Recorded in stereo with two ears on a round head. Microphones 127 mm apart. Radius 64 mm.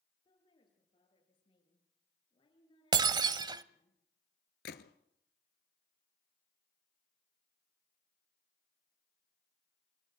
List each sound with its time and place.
0.2 s a woman speaking: 35° left (ahead or behind), 10 m
2.9 s breaking glass: 30° right (ahead or behind), 0.9 m
4.7 s a gunshot: 80° left, 1.5 m